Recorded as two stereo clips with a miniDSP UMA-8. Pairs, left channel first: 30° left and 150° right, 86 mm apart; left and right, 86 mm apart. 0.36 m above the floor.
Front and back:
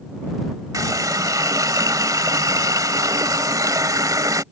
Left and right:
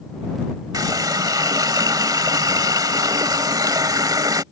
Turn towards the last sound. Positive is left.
turn(degrees=-115)